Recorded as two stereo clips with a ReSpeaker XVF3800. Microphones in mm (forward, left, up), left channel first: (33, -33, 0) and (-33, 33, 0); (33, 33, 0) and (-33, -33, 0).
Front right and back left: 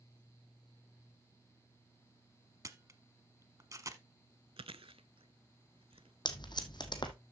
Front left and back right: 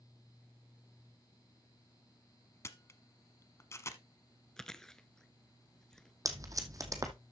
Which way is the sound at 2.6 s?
95° left.